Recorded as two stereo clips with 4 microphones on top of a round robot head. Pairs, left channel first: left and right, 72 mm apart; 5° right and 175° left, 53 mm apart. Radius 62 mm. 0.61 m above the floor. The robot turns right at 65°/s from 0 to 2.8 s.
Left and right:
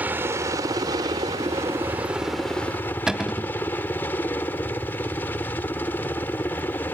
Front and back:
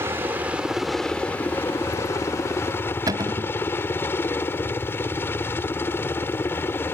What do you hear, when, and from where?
0.0 s a helicopter: 155° right; by 6.9 s 25° left
3.1 s a cupboard door: 175° right